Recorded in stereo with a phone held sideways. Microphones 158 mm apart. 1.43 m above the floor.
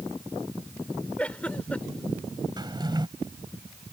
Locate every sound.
1.2 s a giggle: 10° left (ahead or behind)
2.6 s a drawer: 30° right (ahead or behind)